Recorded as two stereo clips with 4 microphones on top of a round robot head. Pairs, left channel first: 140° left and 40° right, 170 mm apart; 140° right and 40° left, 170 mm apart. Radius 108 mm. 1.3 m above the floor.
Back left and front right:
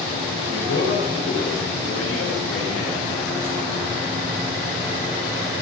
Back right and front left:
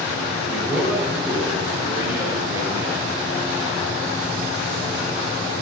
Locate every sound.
0.5 s a man speaking: 130° left, 4 m; by 3.2 s 110° left, 4.5 m